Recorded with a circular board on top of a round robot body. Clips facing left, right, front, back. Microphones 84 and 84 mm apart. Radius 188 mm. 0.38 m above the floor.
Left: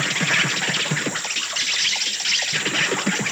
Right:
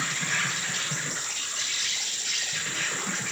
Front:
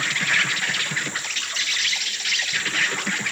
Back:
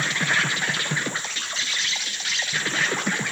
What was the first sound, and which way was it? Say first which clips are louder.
An insect: left 7 dB, even; 115° left.